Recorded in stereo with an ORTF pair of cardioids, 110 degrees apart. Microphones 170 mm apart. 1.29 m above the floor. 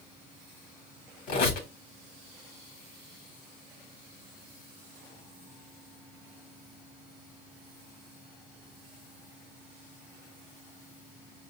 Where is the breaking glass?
No breaking glass in this recording.